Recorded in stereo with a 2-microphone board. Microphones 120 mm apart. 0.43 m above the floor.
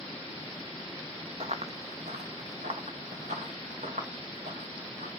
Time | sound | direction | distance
1.4 | running footsteps | 55° right (ahead or behind) | 1.0 m